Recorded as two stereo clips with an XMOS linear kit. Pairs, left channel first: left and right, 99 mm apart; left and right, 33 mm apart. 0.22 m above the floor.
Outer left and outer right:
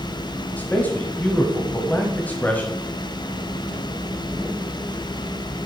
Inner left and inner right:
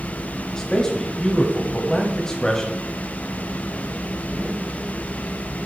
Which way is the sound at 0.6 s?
15° left (ahead or behind).